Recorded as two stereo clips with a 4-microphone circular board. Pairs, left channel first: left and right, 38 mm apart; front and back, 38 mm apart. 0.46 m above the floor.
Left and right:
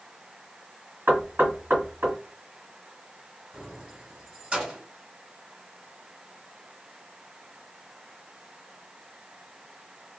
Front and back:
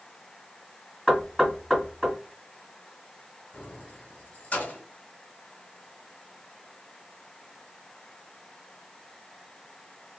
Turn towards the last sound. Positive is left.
turn(degrees=-45)